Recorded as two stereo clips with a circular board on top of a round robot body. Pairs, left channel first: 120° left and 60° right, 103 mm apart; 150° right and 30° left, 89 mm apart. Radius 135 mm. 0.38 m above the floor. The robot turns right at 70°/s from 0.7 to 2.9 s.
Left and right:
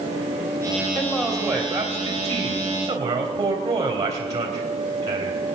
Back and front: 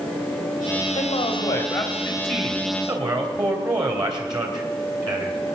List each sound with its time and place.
0.9 s a man speaking: 145° right, 3.5 m; by 5.4 s 10° right, 3.5 m